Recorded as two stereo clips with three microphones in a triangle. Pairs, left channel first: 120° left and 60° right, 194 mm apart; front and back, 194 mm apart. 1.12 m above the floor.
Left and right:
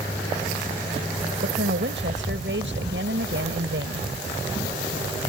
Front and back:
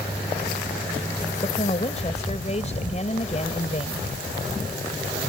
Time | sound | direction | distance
1.4 | a woman speaking | 55° right | ?